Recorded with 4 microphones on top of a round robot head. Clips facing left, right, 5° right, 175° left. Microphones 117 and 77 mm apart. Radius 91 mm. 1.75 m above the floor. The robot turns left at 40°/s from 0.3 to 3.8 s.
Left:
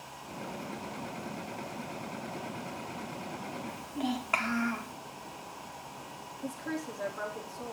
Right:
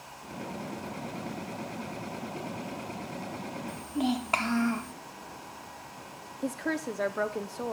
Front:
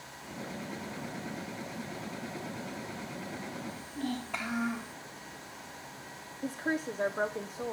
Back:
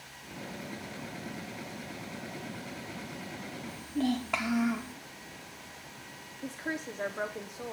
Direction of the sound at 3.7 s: 145° right.